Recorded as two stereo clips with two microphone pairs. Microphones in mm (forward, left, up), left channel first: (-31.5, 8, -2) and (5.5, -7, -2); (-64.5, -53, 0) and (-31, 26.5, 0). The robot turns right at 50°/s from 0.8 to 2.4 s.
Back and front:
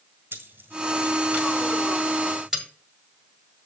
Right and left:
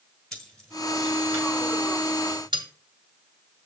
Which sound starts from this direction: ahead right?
Keys jangling, at 0.3 s.